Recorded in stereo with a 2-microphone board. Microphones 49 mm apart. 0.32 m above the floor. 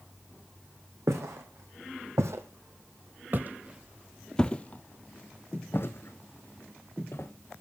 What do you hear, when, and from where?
1.1 s footsteps: 80° right, 1.6 m; by 7.3 s 65° left (ahead or behind), 1.8 m